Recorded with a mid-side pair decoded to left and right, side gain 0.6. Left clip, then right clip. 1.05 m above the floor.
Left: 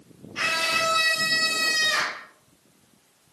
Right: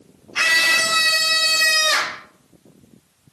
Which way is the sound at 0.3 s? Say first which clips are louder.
Right 8 dB; 55° right.